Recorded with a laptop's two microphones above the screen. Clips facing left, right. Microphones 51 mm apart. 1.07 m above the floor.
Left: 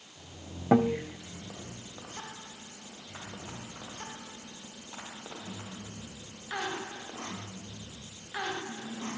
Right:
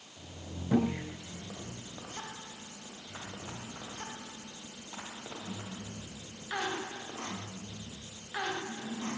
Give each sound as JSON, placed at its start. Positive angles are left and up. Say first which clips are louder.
{"t": 0.7, "sound": "a guitar", "louder": "left 5 dB", "side_deg": 85, "distance_m": 3.0}